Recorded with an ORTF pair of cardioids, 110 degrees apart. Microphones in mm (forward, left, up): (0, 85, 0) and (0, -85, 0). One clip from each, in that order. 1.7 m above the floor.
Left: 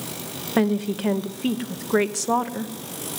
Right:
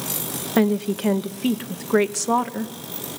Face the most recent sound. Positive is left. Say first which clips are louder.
# right 2 dB
turn(degrees=-5)